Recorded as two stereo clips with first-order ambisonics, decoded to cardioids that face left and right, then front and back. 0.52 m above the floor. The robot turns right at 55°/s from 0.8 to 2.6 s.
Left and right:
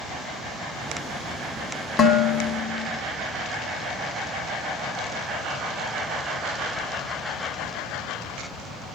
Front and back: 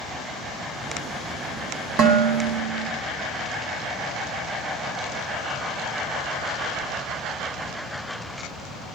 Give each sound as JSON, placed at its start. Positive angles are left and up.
{"t": 2.0, "sound": "dishes clattering", "azimuth_deg": 150, "distance_m": 1.3}